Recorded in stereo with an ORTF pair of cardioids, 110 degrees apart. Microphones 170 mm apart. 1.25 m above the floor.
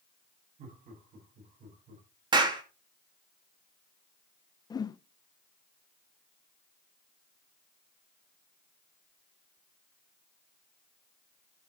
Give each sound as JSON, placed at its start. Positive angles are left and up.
{"t": 0.6, "sound": "laughter", "azimuth_deg": -55, "distance_m": 9.0}
{"t": 2.3, "sound": "a clap", "azimuth_deg": -25, "distance_m": 2.0}
{"t": 4.7, "sound": "a whoosh", "azimuth_deg": 25, "distance_m": 0.6}